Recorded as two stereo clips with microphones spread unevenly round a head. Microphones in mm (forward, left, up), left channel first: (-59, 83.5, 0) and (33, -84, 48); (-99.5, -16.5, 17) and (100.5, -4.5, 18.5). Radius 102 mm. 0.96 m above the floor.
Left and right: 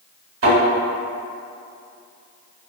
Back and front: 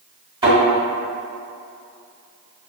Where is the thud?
65° right, 2.0 m.